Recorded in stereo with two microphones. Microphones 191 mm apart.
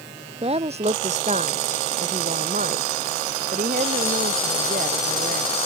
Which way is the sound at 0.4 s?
30° right (ahead or behind).